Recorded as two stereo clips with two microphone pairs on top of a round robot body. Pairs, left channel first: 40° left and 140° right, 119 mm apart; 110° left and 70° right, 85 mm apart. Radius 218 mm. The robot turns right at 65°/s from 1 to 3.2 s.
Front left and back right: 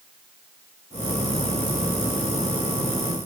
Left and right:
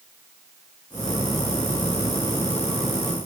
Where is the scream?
No scream in this recording.